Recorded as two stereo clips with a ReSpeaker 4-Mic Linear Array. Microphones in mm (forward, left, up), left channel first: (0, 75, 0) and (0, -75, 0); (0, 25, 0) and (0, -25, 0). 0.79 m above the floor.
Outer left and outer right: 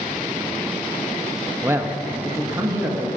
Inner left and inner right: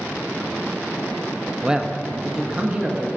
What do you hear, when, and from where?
1.6 s a man speaking: 15° right (ahead or behind), 0.6 m; by 3.1 s 20° right (ahead or behind), 1.7 m